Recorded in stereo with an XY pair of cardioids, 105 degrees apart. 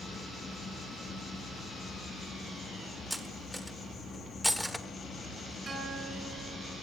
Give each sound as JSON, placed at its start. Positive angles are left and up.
{"t": 0.0, "sound": "an insect", "azimuth_deg": 40, "distance_m": 9.5}
{"t": 3.1, "sound": "cutlery clinking", "azimuth_deg": 0, "distance_m": 1.6}
{"t": 5.7, "sound": "a guitar", "azimuth_deg": -30, "distance_m": 9.0}